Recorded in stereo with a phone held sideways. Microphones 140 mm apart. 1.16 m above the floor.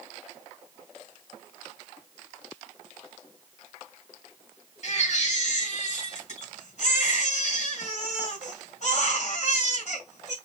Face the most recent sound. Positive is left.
turn(degrees=60)  # may be behind; listen again after turning